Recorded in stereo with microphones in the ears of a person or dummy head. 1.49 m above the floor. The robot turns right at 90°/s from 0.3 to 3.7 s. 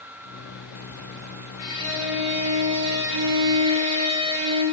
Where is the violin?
135° left, 2.5 m; by 4.6 s 35° right, 2.5 m.